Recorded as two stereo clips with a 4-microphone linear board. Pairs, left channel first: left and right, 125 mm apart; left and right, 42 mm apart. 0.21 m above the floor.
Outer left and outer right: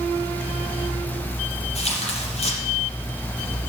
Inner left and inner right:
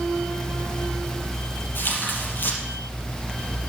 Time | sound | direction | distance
1.8 | tearing paper | 55° left (ahead or behind) | 4.5 m